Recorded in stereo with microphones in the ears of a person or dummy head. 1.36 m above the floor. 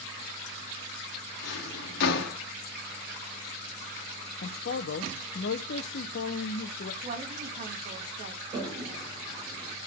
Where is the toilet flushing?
20° right (ahead or behind), 4.5 m.